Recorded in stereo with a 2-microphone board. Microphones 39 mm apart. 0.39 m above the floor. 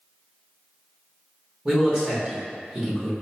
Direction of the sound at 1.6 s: 20° right (ahead or behind).